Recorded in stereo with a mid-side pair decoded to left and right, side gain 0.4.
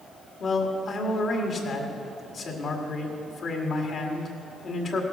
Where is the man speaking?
55° left, 2 m.